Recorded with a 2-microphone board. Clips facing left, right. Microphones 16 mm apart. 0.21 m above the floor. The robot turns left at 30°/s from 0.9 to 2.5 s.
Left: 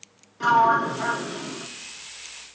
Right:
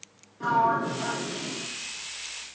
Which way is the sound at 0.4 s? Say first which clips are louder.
Left 5 dB; 70° left (ahead or behind).